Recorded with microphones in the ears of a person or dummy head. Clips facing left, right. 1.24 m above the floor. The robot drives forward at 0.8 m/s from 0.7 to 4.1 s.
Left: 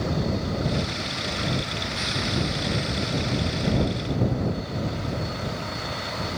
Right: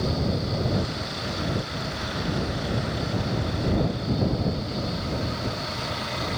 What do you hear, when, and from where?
Only background noise.